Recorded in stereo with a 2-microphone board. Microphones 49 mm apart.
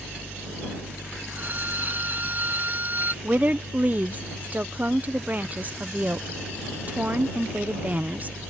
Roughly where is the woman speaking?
Right.